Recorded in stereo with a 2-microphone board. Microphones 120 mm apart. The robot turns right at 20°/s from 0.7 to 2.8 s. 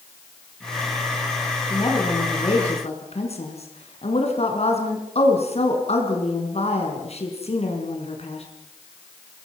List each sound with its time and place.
1.7 s a woman speaking: 40° left (ahead or behind), 5 m; by 8.4 s 60° left (ahead or behind), 5 m